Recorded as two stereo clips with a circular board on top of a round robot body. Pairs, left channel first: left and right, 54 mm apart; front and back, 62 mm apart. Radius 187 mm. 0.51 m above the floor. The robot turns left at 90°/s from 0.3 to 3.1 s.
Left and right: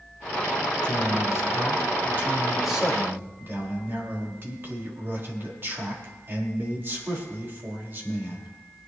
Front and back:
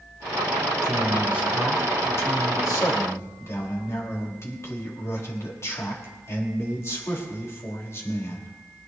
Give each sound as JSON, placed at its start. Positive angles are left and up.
{"t": 0.8, "sound": "a man speaking", "azimuth_deg": 165, "distance_m": 3.5}